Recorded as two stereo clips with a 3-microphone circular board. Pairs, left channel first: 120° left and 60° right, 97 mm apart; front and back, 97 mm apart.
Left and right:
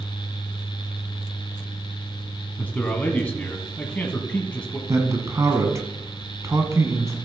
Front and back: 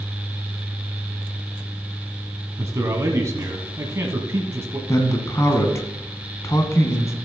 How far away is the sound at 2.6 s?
About 1.3 m.